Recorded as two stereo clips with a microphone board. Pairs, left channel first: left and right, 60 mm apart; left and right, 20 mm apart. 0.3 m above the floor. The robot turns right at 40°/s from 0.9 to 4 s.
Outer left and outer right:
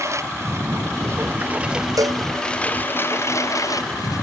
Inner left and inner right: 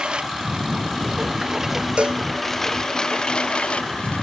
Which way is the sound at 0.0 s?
55° right (ahead or behind).